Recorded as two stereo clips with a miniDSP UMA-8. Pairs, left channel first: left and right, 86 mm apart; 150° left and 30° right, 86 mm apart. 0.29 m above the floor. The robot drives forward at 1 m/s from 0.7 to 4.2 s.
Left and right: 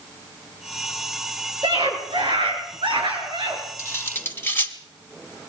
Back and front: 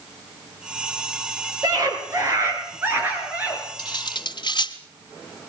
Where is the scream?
70° right, 4 m; by 3.6 s 105° right, 3.5 m.